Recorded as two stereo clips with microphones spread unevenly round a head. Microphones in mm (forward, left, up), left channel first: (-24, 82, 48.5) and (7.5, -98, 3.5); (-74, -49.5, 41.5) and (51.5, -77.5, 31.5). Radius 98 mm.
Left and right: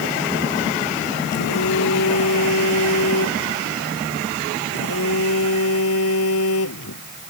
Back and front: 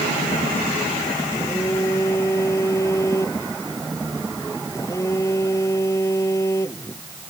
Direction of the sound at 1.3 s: 90° left.